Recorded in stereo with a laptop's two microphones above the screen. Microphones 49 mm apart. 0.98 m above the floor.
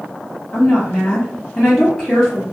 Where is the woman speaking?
30° left (ahead or behind), 1.6 m.